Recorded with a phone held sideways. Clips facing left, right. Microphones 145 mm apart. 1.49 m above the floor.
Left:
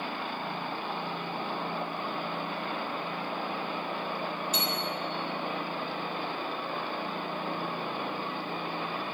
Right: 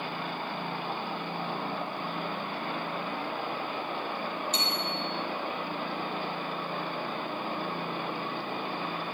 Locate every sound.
4.5 s a bicycle bell: 5° left (ahead or behind), 4 m